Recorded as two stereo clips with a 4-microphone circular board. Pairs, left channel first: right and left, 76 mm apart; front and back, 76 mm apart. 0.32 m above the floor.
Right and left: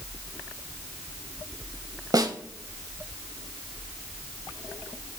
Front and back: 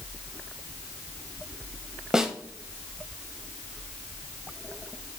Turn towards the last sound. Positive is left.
turn(degrees=100)